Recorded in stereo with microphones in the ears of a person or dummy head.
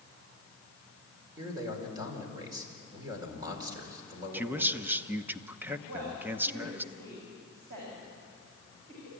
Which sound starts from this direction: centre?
A man speaking, at 4.3 s.